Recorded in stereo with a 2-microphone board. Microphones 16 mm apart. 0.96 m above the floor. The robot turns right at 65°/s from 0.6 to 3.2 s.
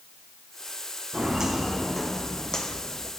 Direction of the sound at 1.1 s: 50° right (ahead or behind).